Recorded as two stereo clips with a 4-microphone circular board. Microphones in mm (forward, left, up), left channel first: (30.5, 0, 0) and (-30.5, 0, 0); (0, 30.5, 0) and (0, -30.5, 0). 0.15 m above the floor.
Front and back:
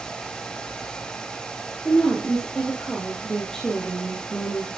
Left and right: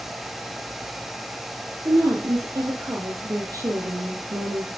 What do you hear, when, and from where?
1.9 s a woman speaking: 80° right, 3.5 m